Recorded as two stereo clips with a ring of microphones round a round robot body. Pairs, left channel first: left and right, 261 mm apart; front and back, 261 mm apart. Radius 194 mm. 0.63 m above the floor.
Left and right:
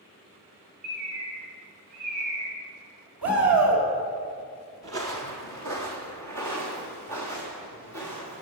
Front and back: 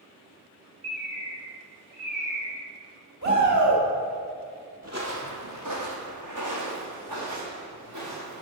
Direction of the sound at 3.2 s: 120° right.